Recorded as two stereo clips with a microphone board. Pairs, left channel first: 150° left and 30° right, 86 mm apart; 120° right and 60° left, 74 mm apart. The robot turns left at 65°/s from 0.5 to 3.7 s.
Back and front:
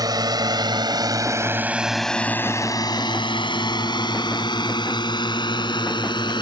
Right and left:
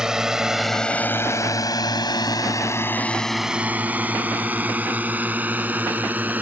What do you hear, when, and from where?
0.0 s a drone: 20° right; by 6.4 s 125° left